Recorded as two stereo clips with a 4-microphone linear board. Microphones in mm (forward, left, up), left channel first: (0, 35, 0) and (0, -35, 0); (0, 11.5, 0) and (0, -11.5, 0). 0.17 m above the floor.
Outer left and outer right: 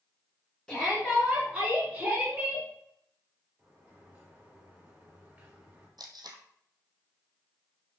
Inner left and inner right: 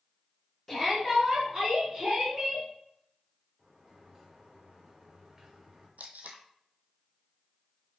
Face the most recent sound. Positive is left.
turn(degrees=-85)